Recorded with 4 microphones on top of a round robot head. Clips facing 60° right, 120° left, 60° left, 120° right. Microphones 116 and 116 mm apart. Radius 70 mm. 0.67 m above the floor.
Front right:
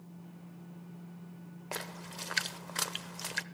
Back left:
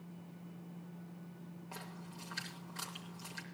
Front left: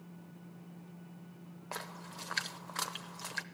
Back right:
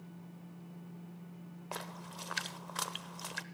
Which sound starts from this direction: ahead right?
A splash, at 1.7 s.